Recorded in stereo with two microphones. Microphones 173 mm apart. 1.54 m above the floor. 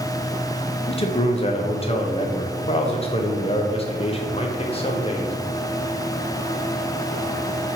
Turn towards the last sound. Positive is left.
turn(degrees=35)  # may be behind; listen again after turning